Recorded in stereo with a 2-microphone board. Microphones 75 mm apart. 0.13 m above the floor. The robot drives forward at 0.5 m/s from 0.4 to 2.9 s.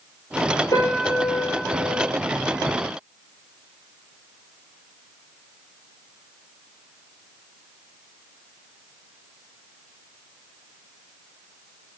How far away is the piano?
About 1.3 m.